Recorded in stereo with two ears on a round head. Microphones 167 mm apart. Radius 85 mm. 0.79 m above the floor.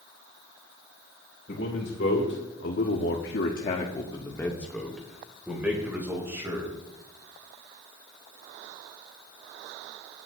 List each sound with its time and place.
1.5 s a man speaking: 55° left (ahead or behind), 3 m; by 6.7 s 15° right (ahead or behind), 4 m